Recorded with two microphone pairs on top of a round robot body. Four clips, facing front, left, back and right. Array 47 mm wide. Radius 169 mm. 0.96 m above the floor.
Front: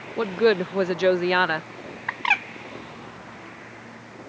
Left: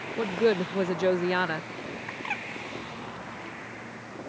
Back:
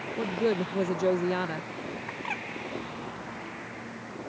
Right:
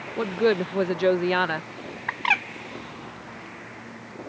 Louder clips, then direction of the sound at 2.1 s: Right 12 dB, front 15 dB; 35° right.